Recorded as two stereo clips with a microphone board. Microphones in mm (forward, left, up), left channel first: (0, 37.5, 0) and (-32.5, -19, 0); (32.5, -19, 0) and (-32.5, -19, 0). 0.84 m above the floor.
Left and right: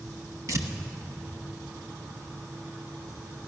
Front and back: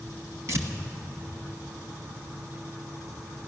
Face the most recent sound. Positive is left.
turn(degrees=-145)